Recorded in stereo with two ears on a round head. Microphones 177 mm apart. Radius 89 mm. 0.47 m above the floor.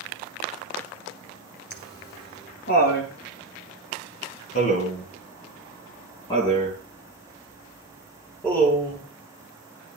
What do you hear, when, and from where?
1.7 s laughter: 60° left (ahead or behind), 6.5 m; by 9.0 s 5° left (ahead or behind), 7.5 m